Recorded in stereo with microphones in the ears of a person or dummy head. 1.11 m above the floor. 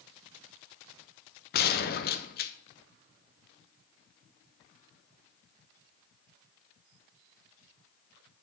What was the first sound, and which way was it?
A gunshot, 45° left (ahead or behind).